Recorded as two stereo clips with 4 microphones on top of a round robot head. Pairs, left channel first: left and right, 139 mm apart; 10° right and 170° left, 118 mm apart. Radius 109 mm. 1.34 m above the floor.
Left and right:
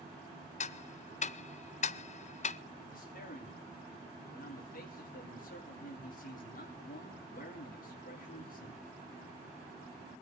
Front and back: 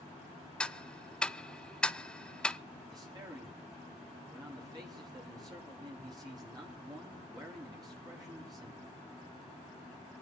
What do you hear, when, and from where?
0.6 s ticking: 70° left, 0.6 m
2.9 s a man speaking: 110° left, 4 m